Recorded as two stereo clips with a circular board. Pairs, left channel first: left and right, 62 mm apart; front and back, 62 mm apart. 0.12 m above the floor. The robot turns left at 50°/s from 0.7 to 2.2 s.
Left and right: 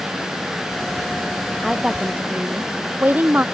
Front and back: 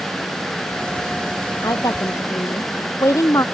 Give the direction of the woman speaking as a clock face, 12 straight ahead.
12 o'clock.